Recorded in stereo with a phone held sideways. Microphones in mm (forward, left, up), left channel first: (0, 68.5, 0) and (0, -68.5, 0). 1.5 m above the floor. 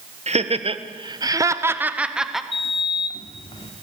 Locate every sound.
0.3 s laughter: 55° right (ahead or behind), 1.3 m; by 2.4 s centre (ahead or behind), 1.5 m
2.5 s a sliding door: 45° left (ahead or behind), 1.7 m